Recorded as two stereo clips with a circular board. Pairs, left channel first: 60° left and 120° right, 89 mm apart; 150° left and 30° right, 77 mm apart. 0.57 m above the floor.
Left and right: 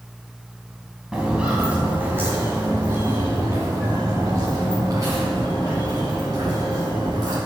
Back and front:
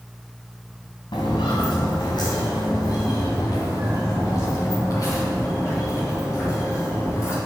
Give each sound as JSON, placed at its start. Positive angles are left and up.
{"t": 1.1, "sound": "footsteps", "azimuth_deg": 160, "distance_m": 3.0}